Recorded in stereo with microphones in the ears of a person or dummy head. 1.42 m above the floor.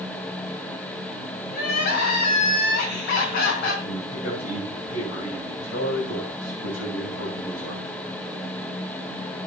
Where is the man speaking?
45° left (ahead or behind), 9.5 m.